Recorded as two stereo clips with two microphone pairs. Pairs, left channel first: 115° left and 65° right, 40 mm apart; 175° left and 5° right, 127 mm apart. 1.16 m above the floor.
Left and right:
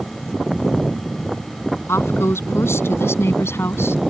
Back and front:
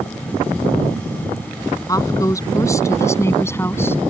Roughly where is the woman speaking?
Left.